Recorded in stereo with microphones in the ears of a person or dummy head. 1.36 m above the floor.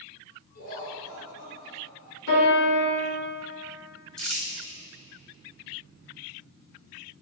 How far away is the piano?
About 3 m.